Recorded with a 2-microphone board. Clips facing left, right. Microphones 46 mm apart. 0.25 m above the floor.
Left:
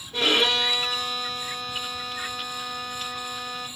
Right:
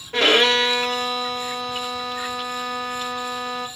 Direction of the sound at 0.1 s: 75° right (ahead or behind).